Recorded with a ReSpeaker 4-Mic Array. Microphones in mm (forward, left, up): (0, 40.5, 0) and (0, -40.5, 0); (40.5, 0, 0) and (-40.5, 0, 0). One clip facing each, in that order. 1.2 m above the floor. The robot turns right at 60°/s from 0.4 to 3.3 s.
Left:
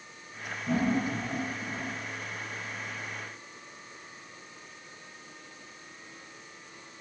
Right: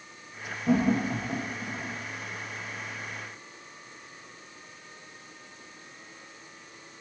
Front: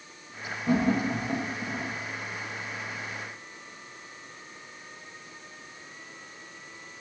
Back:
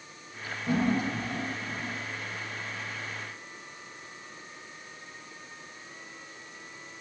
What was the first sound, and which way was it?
Laughter, 85° right.